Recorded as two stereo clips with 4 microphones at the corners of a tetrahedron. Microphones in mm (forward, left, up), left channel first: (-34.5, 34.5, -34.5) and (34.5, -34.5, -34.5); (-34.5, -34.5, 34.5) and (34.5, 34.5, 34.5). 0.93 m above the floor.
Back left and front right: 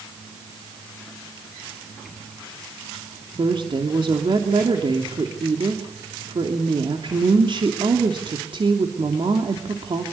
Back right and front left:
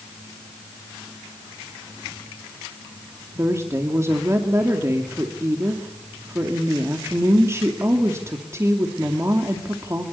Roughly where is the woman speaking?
Ahead.